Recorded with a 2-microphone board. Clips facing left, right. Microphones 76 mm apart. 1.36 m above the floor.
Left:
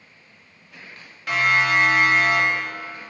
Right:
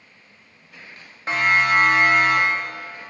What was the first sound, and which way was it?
A siren, 30° right (ahead or behind).